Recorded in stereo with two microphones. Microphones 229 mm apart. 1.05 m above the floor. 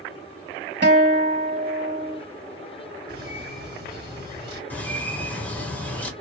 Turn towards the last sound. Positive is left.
turn(degrees=5)  # may be behind; listen again after turning